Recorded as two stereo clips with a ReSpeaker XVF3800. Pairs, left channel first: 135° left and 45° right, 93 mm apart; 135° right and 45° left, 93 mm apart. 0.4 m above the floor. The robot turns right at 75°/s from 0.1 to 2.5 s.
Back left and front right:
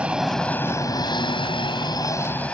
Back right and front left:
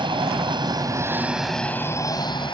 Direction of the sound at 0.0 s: 30° left.